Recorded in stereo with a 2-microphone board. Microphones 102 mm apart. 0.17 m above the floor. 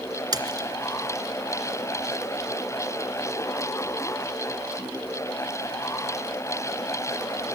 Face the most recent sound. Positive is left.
turn(degrees=-40)  # may be behind; listen again after turning